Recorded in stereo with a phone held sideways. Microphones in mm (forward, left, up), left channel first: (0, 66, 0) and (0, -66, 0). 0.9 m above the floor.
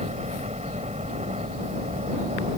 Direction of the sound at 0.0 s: 55° right (ahead or behind).